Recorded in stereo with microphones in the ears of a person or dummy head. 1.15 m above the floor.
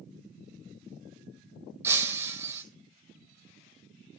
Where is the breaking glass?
15° right (ahead or behind), 1.6 m.